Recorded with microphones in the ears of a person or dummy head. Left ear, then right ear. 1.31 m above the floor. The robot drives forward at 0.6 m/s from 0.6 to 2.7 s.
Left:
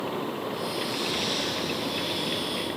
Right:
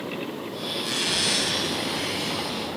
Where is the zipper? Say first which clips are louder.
Right 6 dB; 25° right (ahead or behind), 1.4 m; by 2.7 s 15° right (ahead or behind), 2 m.